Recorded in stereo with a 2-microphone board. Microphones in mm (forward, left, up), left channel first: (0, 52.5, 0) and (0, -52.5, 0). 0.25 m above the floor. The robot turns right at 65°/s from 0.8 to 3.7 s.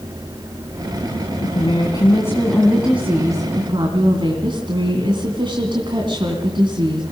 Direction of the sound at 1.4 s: 95° left.